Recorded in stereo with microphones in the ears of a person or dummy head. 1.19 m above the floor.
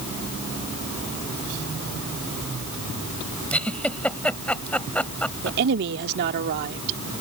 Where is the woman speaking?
55° right (ahead or behind).